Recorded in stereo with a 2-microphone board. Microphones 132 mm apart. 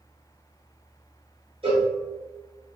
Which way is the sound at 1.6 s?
45° right (ahead or behind).